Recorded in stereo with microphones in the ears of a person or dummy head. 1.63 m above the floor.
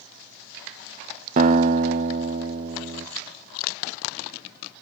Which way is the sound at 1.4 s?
45° right (ahead or behind).